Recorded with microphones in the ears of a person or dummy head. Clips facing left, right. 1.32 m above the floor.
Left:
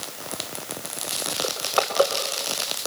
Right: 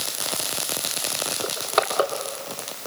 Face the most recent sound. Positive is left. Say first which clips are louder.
# right 1 dB
turn(degrees=-30)  # may be behind; listen again after turning